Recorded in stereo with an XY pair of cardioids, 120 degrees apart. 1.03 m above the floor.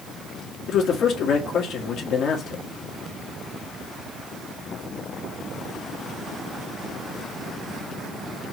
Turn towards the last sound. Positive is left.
turn(degrees=55)